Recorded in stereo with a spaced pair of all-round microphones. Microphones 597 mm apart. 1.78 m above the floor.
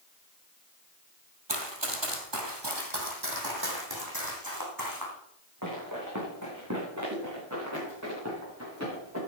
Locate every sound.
1.5 s running footsteps: 45° right (ahead or behind), 2.5 m; by 9.2 s 25° right (ahead or behind), 10 m